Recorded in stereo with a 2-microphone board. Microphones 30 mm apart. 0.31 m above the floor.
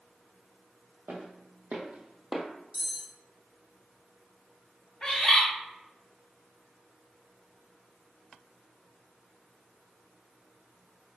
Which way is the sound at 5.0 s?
25° left (ahead or behind).